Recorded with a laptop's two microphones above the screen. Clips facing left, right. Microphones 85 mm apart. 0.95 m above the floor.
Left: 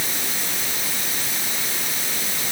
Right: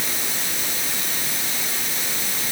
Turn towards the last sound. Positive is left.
No sound to turn to.